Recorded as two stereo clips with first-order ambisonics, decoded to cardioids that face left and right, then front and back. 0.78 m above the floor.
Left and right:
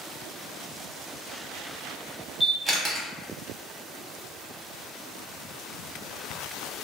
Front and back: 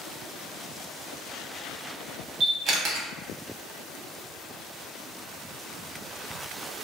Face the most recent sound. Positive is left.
turn(degrees=-155)